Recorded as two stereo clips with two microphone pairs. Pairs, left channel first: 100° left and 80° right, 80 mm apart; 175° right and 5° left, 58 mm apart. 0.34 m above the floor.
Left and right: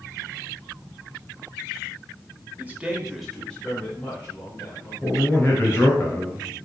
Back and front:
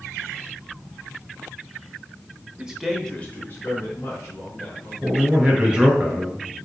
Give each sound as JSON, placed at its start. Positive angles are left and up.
{"t": 2.6, "sound": "a man speaking", "azimuth_deg": -50, "distance_m": 0.9}
{"t": 5.0, "sound": "a man speaking", "azimuth_deg": 80, "distance_m": 1.5}